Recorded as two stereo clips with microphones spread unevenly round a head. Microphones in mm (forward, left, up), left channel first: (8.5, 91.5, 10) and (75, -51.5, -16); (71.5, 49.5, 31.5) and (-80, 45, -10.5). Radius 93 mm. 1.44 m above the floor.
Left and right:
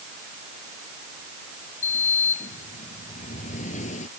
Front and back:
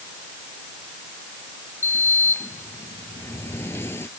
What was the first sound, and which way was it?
A sliding door, 75° left.